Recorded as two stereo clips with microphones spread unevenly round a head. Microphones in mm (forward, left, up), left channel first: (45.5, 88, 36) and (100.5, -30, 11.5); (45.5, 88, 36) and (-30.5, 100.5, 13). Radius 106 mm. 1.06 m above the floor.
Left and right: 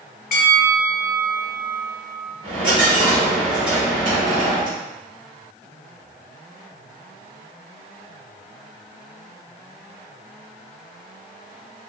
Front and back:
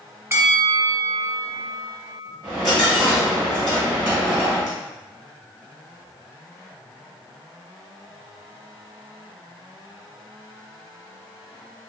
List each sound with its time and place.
0.3 s a bell: 110° left, 0.7 m
2.4 s a dropped coin: 115° right, 1.3 m